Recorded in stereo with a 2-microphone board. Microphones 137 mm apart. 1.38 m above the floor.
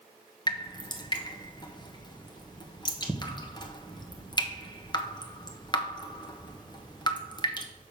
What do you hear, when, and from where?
0.5 s dripping: 30° left (ahead or behind), 1.2 m